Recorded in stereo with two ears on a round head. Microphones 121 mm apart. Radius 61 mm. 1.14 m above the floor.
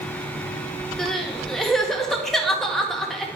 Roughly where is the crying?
Centre.